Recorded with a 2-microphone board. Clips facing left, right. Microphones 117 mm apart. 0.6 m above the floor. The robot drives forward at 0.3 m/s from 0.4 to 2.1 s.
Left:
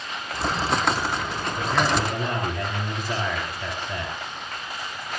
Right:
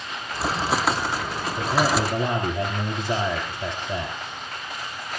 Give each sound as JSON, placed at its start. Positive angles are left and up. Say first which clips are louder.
{"t": 1.6, "sound": "a man speaking", "louder": "right 1 dB", "side_deg": -25, "distance_m": 3.5}